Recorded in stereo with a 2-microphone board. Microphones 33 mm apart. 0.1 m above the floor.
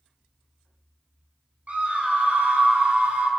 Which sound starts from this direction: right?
A scream, at 1.7 s.